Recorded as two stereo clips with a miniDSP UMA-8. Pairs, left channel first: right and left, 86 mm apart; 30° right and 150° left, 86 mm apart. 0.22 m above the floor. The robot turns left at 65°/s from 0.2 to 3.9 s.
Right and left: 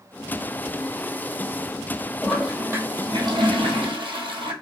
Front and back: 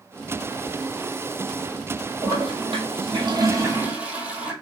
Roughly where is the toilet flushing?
Behind.